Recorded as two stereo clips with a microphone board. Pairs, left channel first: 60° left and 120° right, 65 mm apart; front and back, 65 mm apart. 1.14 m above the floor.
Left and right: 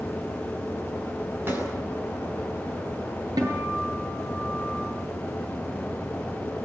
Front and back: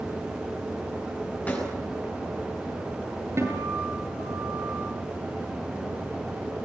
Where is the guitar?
135° right, 8 m.